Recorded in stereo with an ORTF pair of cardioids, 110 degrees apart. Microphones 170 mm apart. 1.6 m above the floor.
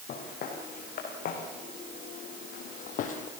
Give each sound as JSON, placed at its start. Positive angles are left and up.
{"t": 0.1, "sound": "footsteps", "azimuth_deg": 60, "distance_m": 5.5}